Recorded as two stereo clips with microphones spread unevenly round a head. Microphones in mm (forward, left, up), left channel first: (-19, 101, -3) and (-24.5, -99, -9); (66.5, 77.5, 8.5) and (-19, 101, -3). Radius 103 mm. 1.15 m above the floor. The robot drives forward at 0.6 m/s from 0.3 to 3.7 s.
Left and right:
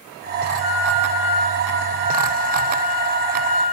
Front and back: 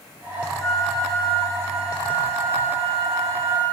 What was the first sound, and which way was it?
A flute, 90° right.